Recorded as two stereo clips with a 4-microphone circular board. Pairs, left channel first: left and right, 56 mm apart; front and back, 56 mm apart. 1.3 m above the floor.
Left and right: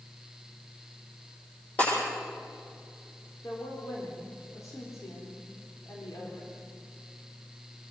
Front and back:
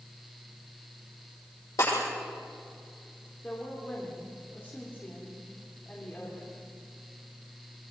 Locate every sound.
1.8 s breaking glass: 30° left, 10 m
3.4 s a woman speaking: 60° left, 3.5 m